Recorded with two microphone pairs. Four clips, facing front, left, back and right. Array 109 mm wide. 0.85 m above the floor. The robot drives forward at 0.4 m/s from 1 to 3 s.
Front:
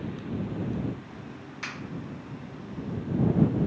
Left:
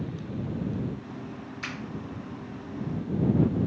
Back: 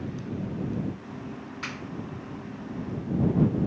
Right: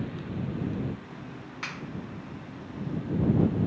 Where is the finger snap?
95° right, 1.4 m.